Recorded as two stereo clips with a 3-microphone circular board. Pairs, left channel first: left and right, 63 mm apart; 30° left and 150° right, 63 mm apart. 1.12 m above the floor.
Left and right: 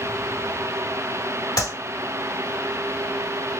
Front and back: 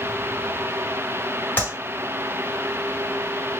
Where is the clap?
85° left, 3 m.